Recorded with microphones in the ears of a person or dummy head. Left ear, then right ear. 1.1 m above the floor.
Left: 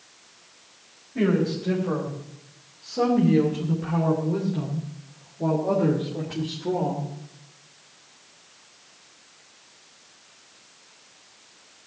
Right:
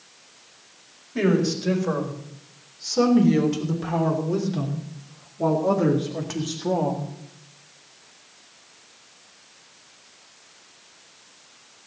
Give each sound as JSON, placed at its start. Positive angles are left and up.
{"t": 1.1, "sound": "a woman speaking", "side_deg": -85, "distance_m": 4.5}